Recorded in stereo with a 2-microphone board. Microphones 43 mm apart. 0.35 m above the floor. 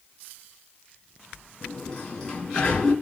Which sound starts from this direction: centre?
A sliding door, at 1.6 s.